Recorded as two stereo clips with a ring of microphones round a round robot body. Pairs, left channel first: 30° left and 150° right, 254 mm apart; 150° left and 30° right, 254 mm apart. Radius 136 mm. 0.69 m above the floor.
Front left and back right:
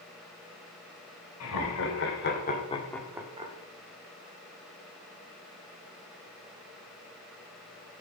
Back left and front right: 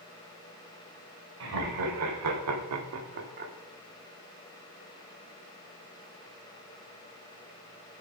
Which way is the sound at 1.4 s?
Straight ahead.